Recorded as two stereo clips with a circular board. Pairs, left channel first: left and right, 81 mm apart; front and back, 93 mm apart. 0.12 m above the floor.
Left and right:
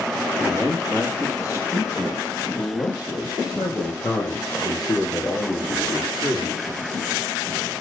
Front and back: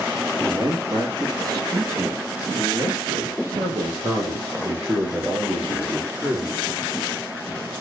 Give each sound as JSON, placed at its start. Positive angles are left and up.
{"t": 0.4, "sound": "a man speaking", "azimuth_deg": 145, "distance_m": 3.0}